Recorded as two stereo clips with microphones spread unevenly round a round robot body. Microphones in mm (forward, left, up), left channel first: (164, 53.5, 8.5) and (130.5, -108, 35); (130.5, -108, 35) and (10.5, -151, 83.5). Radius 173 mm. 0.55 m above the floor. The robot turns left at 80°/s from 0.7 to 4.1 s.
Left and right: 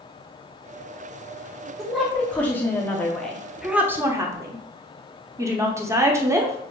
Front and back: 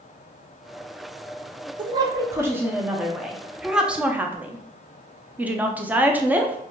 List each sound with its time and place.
1.8 s a woman speaking: 150° left, 0.6 m; by 6.6 s 35° right, 0.6 m